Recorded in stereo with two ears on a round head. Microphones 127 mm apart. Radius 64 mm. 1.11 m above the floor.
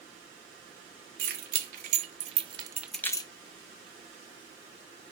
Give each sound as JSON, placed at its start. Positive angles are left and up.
{"t": 1.2, "sound": "keys jangling", "side_deg": -75, "distance_m": 1.7}